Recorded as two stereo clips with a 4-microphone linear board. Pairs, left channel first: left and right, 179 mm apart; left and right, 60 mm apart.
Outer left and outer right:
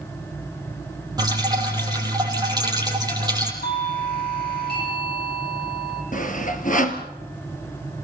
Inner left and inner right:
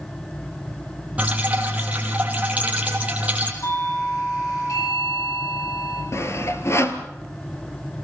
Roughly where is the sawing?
Left.